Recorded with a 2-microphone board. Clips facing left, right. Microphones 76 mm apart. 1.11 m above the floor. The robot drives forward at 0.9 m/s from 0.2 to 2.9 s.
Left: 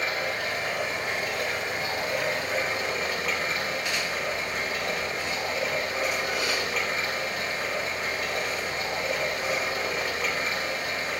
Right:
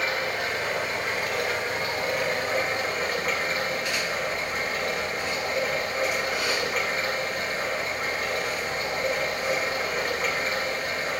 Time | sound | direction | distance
0.0 | running water | 80° right | 2.5 m